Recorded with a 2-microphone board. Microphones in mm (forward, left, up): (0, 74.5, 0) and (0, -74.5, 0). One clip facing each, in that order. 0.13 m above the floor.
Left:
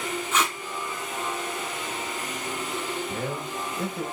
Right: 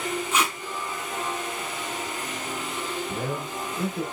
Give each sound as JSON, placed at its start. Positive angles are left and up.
{"t": 0.3, "sound": "tape being pulled", "side_deg": -10, "distance_m": 1.2}
{"t": 3.1, "sound": "a man speaking", "side_deg": -5, "distance_m": 1.7}